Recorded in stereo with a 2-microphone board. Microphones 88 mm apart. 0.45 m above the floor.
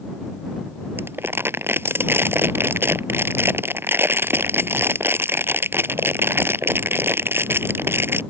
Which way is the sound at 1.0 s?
25° right (ahead or behind).